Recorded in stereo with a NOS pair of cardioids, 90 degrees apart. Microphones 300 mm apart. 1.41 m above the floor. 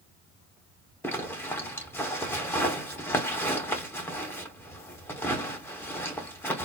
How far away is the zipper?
About 2.0 m.